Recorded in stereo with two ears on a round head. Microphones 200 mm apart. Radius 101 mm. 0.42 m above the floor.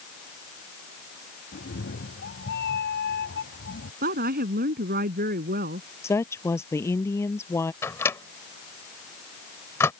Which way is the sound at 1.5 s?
45° left (ahead or behind).